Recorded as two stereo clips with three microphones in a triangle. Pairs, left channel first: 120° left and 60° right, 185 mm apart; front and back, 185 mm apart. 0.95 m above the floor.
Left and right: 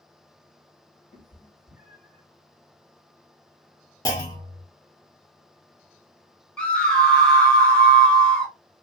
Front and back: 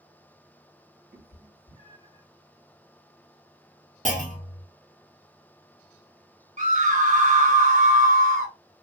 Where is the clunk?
Straight behind, 1.1 m.